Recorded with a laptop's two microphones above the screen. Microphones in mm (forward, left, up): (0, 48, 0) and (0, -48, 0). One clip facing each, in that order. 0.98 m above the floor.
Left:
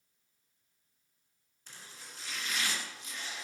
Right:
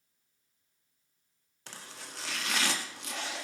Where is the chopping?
75° right (ahead or behind), 1.7 m.